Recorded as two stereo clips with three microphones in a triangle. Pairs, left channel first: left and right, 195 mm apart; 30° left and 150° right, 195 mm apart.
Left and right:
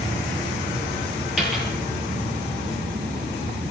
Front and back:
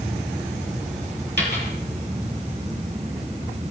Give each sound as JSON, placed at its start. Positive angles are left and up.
{"t": 1.4, "sound": "a dropped coin", "azimuth_deg": 180, "distance_m": 5.5}